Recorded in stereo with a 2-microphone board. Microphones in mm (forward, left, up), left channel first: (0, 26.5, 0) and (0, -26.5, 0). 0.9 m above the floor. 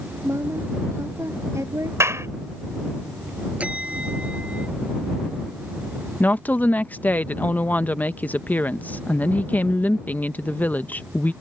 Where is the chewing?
I don't hear chewing.